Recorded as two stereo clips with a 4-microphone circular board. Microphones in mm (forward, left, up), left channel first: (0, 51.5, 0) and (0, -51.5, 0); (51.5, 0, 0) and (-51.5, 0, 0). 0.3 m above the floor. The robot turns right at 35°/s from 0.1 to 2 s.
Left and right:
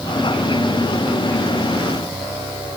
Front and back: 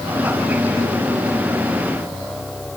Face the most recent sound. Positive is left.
No sound to turn to.